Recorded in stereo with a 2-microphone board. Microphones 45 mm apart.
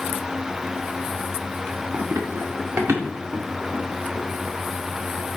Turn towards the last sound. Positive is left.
turn(degrees=-75)  # may be behind; listen again after turning